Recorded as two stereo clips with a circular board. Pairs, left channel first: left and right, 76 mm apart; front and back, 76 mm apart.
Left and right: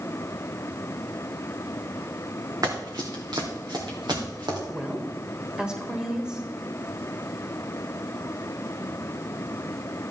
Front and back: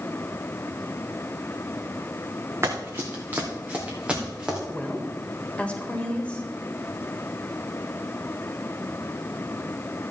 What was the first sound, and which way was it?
Running footsteps, 125° right.